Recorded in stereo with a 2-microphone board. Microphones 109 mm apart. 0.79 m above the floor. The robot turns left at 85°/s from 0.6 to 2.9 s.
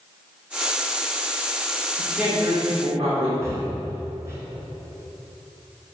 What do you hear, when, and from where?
2.0 s a man speaking: 5° left, 2 m; by 3.3 s 70° right, 2 m
3.4 s breathing: 25° right (ahead or behind), 1.8 m